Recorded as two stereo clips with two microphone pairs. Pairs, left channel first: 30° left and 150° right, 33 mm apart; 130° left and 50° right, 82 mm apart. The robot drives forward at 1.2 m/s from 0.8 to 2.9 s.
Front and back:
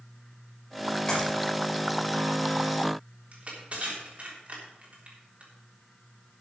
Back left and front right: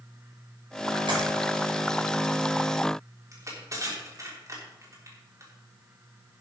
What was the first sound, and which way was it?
A clap, 30° right.